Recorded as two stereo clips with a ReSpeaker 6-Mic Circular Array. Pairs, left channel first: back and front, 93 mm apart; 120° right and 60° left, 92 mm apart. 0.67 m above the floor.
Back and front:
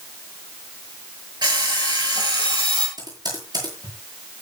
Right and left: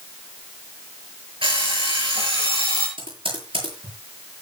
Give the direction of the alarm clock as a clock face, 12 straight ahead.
11 o'clock.